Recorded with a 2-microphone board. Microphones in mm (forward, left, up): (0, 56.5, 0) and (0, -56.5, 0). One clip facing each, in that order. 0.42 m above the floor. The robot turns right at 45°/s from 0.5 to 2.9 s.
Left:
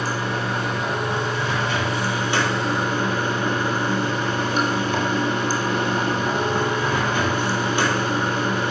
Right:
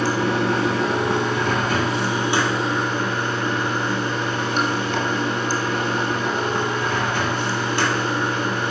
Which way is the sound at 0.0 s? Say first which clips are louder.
Right 5 dB; 100° right.